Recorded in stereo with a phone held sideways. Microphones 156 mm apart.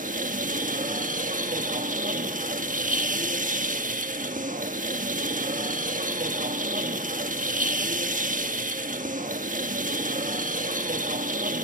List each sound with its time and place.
0.0 s a machine running: 55° right (ahead or behind), 1.2 m